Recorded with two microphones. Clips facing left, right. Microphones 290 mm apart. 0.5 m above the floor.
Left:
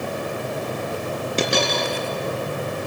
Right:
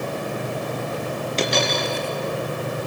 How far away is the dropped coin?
About 2.5 m.